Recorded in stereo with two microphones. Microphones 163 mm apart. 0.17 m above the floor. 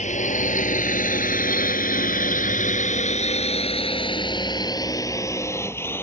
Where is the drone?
50° left (ahead or behind); by 6.0 s 15° left (ahead or behind).